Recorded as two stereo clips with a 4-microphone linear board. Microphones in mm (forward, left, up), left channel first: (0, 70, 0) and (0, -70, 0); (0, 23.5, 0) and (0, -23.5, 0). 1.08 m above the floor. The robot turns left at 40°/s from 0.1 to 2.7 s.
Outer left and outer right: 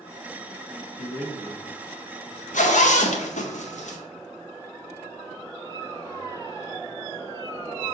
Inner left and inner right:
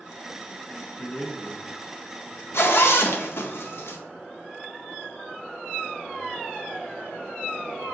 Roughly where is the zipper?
Left.